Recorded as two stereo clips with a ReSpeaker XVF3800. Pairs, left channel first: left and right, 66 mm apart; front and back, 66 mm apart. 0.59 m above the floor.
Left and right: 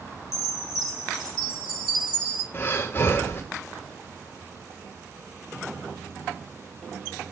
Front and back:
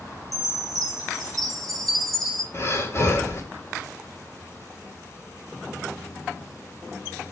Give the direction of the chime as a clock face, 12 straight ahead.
3 o'clock.